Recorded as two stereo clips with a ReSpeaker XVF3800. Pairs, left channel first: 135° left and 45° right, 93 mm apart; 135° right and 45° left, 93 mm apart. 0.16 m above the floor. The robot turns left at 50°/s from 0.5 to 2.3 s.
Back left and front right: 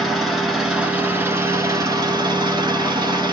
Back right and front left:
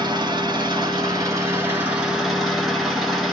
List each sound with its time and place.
0.0 s an engine running: 45° left, 1.6 m; by 3.3 s 45° right, 1.6 m